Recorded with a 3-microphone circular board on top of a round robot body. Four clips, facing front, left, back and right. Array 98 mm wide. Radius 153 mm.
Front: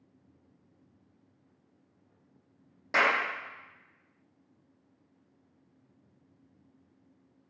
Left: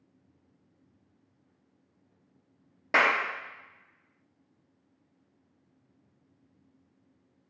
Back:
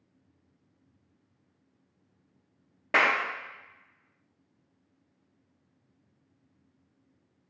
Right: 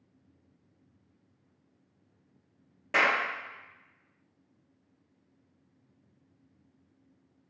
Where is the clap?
130° left, 1.1 m.